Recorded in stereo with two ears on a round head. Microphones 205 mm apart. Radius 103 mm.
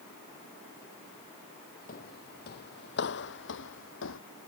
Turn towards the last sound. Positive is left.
turn(degrees=60)  # may be behind; listen again after turning